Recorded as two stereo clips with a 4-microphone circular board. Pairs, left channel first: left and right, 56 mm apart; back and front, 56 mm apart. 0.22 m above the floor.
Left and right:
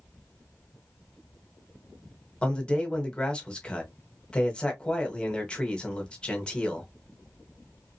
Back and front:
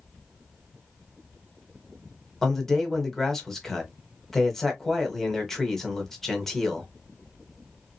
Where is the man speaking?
110° left, 1.1 m.